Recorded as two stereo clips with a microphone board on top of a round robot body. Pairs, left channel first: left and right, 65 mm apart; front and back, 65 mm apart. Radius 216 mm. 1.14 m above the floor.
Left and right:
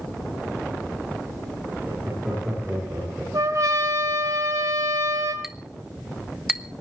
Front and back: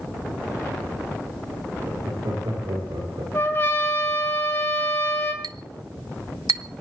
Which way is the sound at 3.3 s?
55° right.